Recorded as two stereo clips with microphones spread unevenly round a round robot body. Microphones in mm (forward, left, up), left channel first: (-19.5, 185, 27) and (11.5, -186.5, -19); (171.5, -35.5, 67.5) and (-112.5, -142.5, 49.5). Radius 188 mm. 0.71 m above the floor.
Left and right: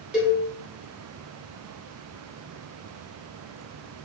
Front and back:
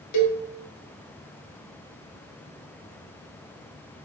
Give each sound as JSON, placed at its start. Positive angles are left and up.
{"t": 0.1, "sound": "a cowbell", "azimuth_deg": 0, "distance_m": 1.3}